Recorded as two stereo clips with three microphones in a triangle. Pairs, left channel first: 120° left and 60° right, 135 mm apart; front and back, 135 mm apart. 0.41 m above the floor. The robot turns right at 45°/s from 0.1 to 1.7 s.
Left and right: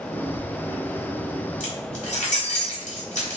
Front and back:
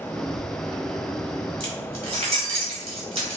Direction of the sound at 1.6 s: 135° left.